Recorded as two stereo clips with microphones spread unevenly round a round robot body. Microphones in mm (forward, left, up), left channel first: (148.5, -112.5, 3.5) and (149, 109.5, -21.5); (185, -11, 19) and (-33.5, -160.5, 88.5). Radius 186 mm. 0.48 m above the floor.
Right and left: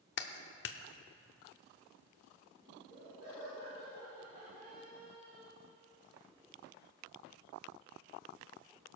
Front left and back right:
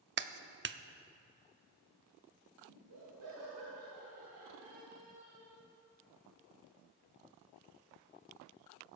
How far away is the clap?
About 0.6 m.